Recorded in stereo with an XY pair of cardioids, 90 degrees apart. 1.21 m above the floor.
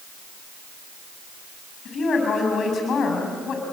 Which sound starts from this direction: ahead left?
A woman speaking, at 1.9 s.